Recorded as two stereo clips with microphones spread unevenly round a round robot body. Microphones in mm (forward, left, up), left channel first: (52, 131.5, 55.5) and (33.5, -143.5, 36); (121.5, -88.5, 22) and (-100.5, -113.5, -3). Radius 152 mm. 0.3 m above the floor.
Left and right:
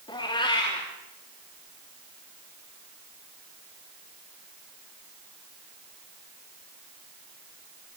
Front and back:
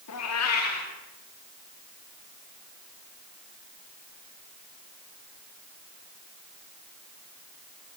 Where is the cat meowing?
10° left, 5 m.